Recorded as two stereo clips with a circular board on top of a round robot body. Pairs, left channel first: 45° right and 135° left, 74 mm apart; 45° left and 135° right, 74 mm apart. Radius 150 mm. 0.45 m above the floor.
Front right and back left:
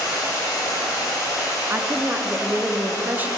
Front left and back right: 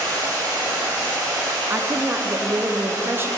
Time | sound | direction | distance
0.0 | running water | 90° right | 3 m
1.7 | a woman speaking | 170° right | 0.8 m